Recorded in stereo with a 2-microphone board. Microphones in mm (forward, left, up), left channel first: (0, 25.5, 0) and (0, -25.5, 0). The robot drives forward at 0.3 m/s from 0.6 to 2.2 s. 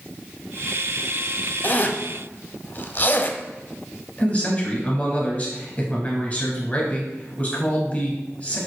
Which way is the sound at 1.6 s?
40° left (ahead or behind).